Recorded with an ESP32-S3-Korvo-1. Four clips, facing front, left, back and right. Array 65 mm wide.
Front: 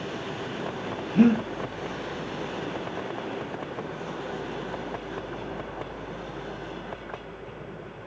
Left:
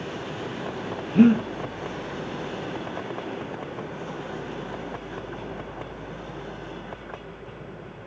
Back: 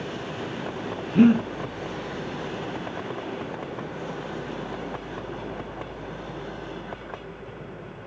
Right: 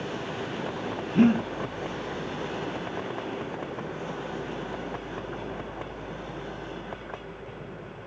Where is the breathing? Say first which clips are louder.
Left 4 dB, back 3 dB; 145° left, 0.8 m.